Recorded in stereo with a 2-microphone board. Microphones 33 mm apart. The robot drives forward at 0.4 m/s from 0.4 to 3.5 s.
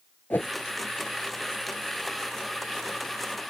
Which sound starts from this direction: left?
A whoosh, at 0.3 s.